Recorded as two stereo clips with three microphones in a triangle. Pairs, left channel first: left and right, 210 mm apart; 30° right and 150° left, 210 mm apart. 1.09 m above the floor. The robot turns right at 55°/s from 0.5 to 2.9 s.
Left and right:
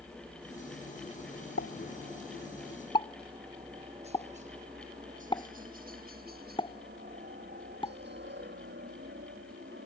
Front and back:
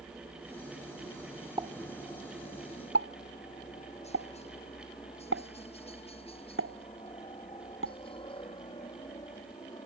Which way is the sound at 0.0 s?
125° right.